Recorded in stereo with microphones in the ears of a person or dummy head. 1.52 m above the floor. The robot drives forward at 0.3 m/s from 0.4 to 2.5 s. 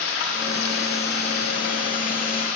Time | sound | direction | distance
0.0 | running water | 60° left (ahead or behind) | 1.6 m